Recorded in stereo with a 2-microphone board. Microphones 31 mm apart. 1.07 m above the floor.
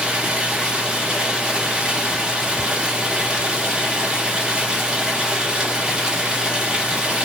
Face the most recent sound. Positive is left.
turn(degrees=-30)  # may be behind; listen again after turning